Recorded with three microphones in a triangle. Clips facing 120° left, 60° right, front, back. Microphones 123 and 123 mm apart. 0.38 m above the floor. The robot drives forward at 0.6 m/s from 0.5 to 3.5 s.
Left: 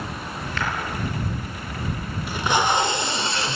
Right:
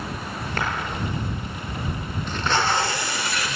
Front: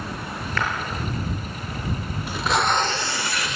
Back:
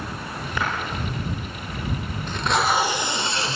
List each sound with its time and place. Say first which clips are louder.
0.6 s a clap: right 1 dB, even; 105° right, 7 m
2.3 s tape being pulled: left 2 dB, even; 60° left, 1.0 m; by 3.6 s 155° left, 1.1 m